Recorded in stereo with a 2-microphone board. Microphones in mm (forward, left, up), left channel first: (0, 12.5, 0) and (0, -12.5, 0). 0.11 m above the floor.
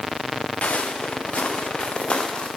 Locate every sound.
0.6 s footsteps: 80° left, 1.9 m; by 2.5 s 45° left (ahead or behind), 3 m